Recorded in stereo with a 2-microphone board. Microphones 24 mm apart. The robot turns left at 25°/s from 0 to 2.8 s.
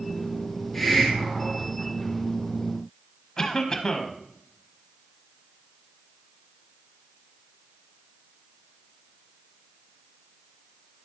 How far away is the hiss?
About 1.9 m.